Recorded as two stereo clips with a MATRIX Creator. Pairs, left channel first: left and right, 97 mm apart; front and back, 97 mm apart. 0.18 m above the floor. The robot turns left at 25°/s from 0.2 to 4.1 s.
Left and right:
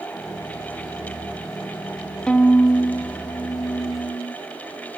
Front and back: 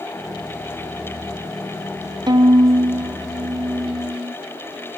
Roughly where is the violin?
Behind.